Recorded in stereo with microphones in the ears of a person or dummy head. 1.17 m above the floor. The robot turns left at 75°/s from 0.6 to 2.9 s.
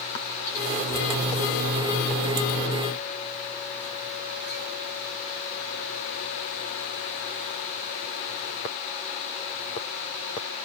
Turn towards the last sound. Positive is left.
No sound to turn to.